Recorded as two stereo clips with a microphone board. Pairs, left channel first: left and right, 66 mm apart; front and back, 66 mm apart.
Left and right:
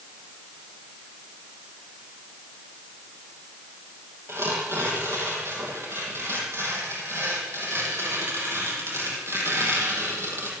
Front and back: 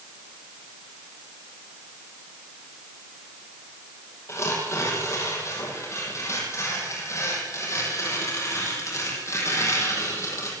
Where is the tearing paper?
45° right, 6.5 m.